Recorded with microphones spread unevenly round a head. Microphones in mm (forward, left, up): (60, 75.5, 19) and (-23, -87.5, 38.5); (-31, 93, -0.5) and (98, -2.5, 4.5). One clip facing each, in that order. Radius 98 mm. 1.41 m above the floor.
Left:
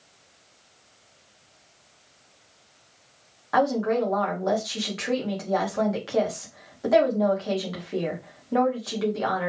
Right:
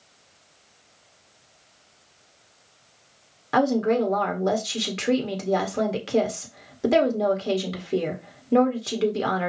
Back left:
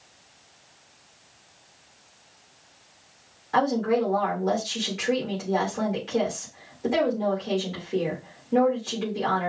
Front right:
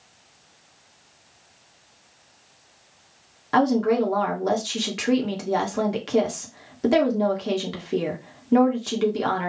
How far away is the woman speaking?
About 1.9 m.